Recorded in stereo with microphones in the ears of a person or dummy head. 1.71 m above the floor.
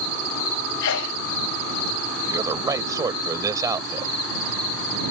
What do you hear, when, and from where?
0.8 s a sneeze: 75° left (ahead or behind)
2.3 s a man speaking: 20° right (ahead or behind)